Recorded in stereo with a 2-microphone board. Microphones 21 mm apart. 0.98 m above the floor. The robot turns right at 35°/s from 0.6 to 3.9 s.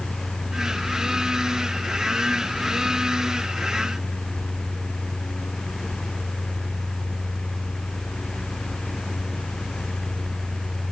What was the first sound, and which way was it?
Only background noise.